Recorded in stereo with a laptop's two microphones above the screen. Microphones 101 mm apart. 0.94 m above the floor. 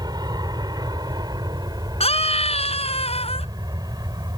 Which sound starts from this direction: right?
An aircraft, at 0.0 s.